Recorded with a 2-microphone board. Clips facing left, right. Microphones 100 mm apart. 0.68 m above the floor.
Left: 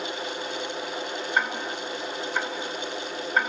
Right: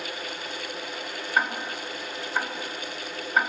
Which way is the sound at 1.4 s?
10° right (ahead or behind).